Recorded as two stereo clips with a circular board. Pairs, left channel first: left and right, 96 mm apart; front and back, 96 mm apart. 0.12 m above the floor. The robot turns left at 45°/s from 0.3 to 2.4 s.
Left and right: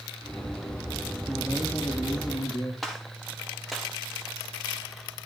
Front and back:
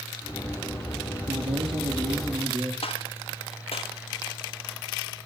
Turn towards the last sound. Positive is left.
turn(degrees=0)